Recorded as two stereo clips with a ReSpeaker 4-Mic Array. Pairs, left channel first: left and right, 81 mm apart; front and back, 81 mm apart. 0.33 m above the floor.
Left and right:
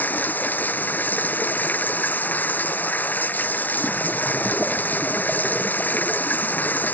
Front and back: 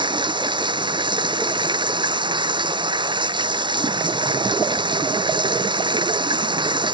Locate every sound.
0.0 s running water: 160° left